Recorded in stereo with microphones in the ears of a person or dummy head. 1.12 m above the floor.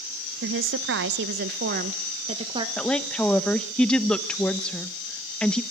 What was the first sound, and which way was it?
A woman speaking, 55° right (ahead or behind).